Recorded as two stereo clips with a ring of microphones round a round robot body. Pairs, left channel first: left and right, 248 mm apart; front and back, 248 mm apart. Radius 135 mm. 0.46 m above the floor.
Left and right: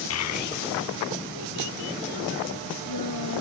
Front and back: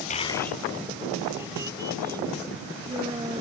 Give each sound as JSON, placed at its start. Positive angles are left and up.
{"t": 0.1, "sound": "a child speaking", "azimuth_deg": 60}